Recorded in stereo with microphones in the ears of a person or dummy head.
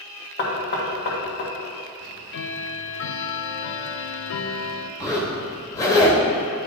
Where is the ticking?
65° left (ahead or behind), 0.5 m.